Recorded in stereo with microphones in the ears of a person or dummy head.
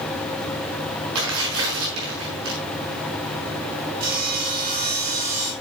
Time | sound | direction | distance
1.1 | tearing paper | 75° right (ahead or behind) | 5.5 m
4.0 | sawing | 60° right (ahead or behind) | 5.5 m